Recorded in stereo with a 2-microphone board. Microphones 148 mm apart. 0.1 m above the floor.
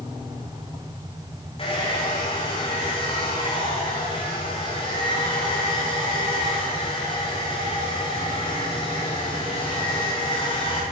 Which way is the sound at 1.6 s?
40° left (ahead or behind).